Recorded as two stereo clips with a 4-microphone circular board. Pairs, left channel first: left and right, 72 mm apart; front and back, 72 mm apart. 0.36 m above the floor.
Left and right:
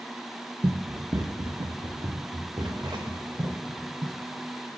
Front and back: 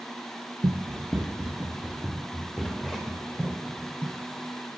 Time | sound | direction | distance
0.6 | running footsteps | 140° right | 1.1 m